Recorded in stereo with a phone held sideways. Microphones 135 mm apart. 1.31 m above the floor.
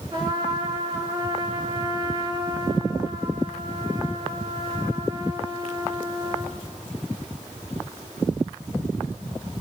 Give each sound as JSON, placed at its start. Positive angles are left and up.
{"t": 0.1, "sound": "a trumpet", "side_deg": -35, "distance_m": 4.0}